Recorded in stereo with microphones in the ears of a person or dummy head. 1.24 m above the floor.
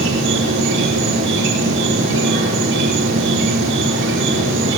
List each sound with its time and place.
0.0 s an insect: 65° right (ahead or behind), 4.5 m